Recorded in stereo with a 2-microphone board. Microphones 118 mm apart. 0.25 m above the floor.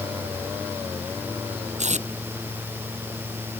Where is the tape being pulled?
80° right.